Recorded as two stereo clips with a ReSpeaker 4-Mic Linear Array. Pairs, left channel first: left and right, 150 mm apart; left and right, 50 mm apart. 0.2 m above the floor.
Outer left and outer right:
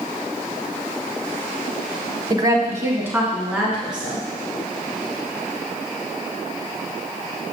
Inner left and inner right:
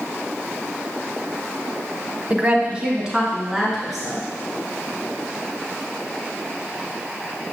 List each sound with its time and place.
2.3 s a woman speaking: 25° right (ahead or behind), 1.0 m; by 4.2 s 5° right (ahead or behind), 3 m